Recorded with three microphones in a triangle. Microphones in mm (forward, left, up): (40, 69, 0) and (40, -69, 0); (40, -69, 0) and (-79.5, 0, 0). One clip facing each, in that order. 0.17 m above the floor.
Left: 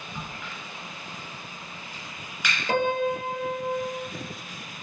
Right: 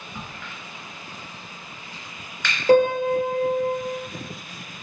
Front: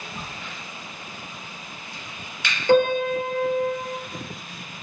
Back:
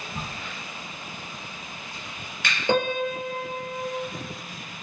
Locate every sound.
0.1 s a crack: 170° left, 2 m
2.7 s a piano: 140° right, 1.4 m